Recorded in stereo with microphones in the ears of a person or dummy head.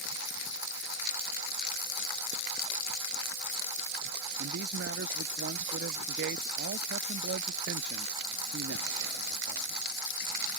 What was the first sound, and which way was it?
A man speaking, 65° right (ahead or behind).